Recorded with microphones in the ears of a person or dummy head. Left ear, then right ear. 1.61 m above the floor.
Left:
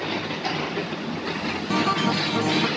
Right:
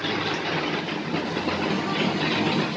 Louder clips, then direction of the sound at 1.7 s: Left 3 dB; 30° left (ahead or behind).